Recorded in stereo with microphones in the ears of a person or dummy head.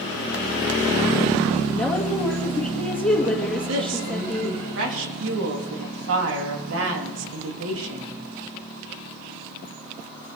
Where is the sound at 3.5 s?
80° right, 3.5 m.